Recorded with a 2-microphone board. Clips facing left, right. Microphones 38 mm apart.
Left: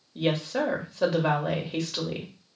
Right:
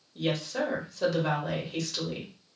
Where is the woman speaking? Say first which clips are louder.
Left 3 dB; 25° left (ahead or behind), 1.3 m.